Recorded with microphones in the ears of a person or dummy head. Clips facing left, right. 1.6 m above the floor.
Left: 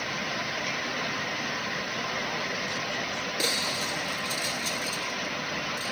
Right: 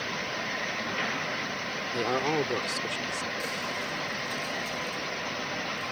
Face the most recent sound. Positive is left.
turn(degrees=50)  # may be behind; listen again after turning